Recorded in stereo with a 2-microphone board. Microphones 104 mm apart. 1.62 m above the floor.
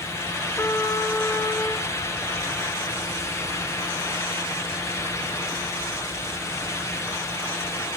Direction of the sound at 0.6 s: 25° left (ahead or behind).